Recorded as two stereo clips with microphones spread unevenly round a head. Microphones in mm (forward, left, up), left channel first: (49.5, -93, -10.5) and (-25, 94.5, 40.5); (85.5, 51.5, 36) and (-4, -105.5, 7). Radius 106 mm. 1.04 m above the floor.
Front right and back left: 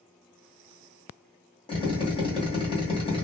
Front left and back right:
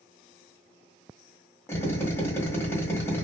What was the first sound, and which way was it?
A drill, 20° right.